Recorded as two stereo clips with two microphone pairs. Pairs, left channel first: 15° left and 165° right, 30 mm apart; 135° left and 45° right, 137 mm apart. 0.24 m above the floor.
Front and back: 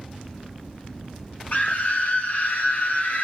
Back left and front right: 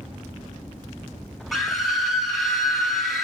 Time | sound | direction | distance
1.5 | a scream | 45° left | 1.9 m